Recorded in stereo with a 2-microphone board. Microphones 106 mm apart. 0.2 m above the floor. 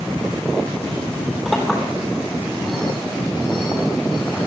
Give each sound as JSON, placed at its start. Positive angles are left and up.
{"t": 1.4, "sound": "a clink", "side_deg": 0, "distance_m": 4.5}